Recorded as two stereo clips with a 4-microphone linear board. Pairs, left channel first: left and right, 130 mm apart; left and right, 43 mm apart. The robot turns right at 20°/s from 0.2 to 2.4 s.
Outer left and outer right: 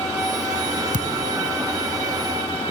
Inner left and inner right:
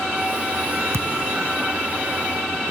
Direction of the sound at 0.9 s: 80° right.